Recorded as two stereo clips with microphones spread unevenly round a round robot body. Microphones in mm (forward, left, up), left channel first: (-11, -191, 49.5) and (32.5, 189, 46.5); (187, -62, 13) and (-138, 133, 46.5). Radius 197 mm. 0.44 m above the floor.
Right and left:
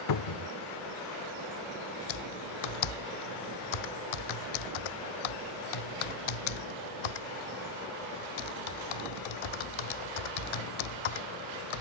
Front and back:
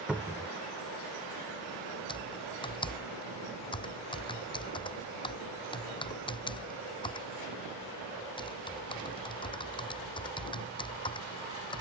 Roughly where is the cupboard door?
Behind right.